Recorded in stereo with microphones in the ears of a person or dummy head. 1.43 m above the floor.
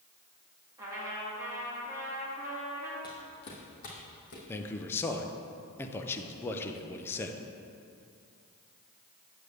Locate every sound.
0.8 s a trumpet: 15° right (ahead or behind), 2.5 m
3.0 s footsteps: 15° left (ahead or behind), 2 m; by 4.4 s 50° left (ahead or behind), 3 m
4.5 s a man speaking: 15° left (ahead or behind), 0.7 m